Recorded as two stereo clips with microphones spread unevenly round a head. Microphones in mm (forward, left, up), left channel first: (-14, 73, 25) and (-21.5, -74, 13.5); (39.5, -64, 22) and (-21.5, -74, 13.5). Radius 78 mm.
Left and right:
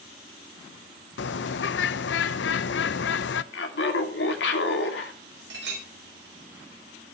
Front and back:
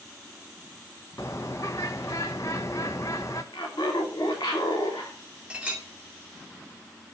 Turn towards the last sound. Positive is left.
turn(degrees=-100)